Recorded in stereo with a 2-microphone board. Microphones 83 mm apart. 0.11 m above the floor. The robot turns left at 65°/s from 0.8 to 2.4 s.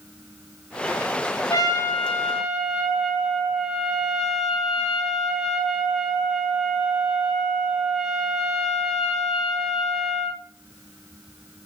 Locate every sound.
1.5 s a trumpet: 50° left, 1.6 m; by 10.4 s 5° right, 1.6 m